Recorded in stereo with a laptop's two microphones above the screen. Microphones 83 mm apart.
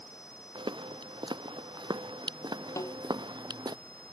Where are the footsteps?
75° right (ahead or behind); by 3.8 s 60° right (ahead or behind).